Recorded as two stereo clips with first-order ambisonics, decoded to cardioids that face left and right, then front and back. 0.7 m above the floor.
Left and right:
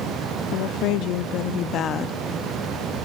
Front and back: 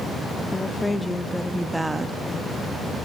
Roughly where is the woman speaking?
Left.